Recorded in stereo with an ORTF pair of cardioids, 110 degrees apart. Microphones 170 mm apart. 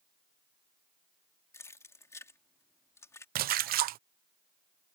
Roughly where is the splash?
Ahead right.